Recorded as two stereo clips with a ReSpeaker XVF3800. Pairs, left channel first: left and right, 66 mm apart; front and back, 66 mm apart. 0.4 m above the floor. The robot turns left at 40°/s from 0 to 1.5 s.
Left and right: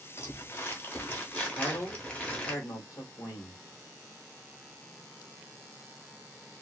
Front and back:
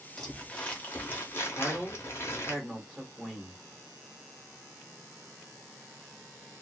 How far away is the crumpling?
About 0.9 m.